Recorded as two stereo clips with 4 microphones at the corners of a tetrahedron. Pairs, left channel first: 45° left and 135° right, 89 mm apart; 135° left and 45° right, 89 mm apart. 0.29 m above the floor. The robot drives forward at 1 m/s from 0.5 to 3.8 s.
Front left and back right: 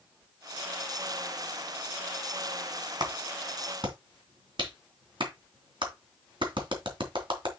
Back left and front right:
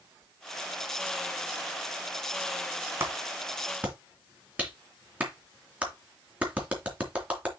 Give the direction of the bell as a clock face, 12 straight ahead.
I don't hear a bell.